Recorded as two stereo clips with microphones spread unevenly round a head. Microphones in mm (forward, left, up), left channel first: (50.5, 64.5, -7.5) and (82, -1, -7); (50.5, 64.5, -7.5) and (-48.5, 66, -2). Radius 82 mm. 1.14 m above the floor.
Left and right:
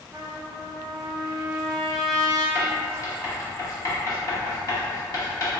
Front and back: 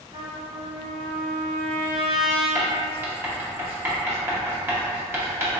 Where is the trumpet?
140° right, 1.3 m.